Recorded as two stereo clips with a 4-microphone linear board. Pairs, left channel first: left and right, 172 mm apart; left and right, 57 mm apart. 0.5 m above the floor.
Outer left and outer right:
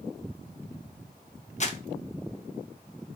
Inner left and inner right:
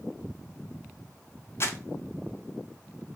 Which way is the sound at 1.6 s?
45° left (ahead or behind).